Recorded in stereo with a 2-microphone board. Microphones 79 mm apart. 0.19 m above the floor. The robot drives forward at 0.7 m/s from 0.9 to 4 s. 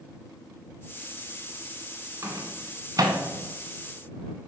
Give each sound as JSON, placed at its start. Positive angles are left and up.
{"t": 2.2, "sound": "a microwave", "side_deg": -40, "distance_m": 1.5}